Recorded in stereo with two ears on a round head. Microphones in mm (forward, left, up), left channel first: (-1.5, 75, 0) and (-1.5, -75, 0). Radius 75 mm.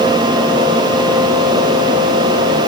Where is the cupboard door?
No cupboard door in this recording.